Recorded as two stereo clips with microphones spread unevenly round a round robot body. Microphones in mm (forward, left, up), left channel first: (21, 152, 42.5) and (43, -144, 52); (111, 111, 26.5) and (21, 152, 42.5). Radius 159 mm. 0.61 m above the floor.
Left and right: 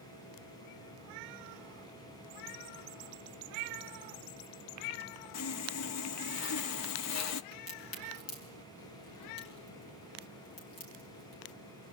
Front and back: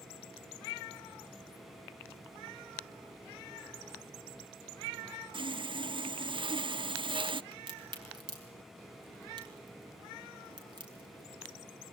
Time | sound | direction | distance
5.3 | sawing | 115° left | 0.7 m
7.5 | a crack | 115° left | 6 m